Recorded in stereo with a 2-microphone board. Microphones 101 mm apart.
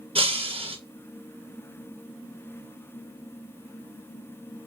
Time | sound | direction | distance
0.1 | breaking glass | 70° right (ahead or behind) | 0.9 m